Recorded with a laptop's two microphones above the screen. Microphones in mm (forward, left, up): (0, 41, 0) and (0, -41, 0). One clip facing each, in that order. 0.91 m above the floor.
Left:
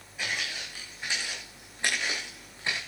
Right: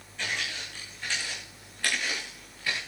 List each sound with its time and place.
0.2 s footsteps: 10° left (ahead or behind), 5.5 m; by 2.8 s 25° left (ahead or behind), 5.5 m